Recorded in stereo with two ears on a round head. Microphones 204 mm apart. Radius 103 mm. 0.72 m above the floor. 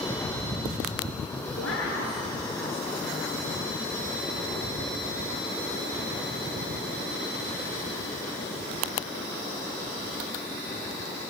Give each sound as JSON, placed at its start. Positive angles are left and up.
{"t": 1.6, "sound": "a woman speaking", "side_deg": 60, "distance_m": 8.5}